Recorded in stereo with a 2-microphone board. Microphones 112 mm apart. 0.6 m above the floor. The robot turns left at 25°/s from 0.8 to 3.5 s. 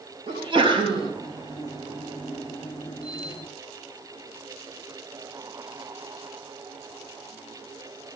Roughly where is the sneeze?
Right.